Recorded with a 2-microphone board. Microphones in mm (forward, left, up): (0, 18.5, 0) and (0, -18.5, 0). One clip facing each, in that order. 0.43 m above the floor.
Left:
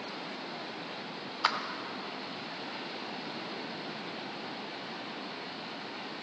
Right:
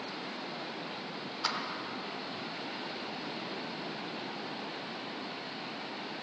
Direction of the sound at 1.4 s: 35° left (ahead or behind).